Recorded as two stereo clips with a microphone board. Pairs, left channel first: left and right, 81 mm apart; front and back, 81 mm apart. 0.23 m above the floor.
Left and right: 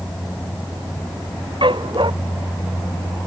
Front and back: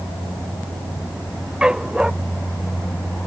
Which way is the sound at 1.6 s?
100° right.